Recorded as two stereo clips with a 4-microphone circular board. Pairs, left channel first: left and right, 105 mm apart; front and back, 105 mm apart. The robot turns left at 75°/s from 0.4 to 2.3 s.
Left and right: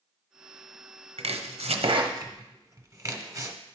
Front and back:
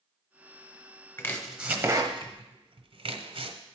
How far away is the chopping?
About 0.8 m.